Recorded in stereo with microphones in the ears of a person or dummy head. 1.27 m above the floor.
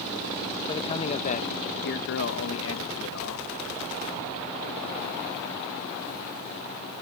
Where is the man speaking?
25° left (ahead or behind); by 3.5 s 80° left.